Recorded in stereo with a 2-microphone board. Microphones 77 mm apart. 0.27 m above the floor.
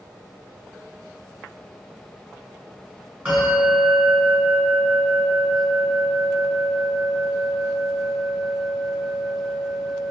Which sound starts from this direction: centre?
A bell, at 3.2 s.